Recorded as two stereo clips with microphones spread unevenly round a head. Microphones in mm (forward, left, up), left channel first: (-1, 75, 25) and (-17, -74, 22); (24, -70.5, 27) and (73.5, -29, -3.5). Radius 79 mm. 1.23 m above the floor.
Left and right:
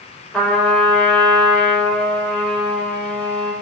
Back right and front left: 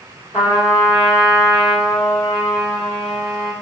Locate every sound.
0.3 s a trumpet: 170° left, 3.5 m